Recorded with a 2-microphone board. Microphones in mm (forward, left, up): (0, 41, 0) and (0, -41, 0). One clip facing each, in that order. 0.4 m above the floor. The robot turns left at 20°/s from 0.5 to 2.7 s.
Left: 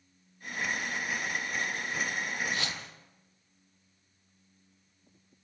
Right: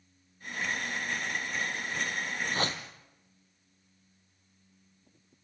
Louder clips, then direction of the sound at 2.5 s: Right 3 dB; 40° right (ahead or behind).